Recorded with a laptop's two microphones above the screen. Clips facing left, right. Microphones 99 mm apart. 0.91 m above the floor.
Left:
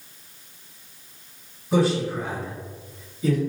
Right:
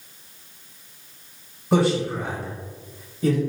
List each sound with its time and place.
1.7 s a man speaking: 65° right (ahead or behind), 1.4 m